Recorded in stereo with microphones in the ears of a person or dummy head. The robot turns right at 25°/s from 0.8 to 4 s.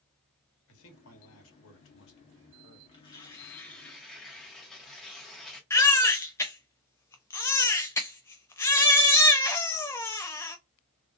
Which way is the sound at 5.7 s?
15° left (ahead or behind).